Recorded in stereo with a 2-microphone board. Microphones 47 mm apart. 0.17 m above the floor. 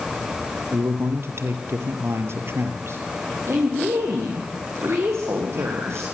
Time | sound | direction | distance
0.7 | a man speaking | 60° right (ahead or behind) | 4 m
3.5 | a woman speaking | 65° right (ahead or behind) | 7 m